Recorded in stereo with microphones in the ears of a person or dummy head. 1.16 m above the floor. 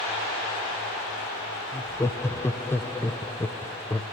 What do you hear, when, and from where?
1.7 s laughter: 10° left (ahead or behind), 0.8 m